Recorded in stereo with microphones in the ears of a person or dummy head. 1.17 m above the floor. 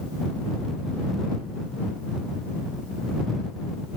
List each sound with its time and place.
Only background noise.